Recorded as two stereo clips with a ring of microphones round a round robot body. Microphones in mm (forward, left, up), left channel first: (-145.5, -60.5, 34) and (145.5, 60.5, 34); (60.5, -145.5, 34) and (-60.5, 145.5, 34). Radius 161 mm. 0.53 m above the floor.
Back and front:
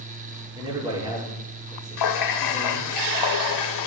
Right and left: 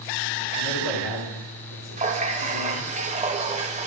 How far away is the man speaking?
About 7 m.